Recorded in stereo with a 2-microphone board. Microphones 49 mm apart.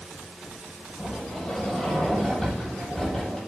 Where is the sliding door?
5° left (ahead or behind), 6.5 m.